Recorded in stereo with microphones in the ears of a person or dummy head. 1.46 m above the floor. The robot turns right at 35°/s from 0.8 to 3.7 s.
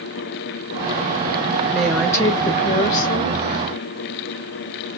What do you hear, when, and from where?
1.7 s a woman speaking: straight ahead, 1.5 m; by 3.4 s 60° left, 1.5 m